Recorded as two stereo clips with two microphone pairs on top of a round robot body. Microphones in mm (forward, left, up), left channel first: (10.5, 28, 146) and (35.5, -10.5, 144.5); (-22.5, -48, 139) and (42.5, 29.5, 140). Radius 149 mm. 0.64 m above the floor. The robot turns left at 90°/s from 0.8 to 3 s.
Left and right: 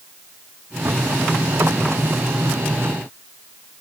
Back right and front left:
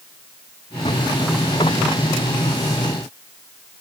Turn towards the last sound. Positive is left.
No sound to turn to.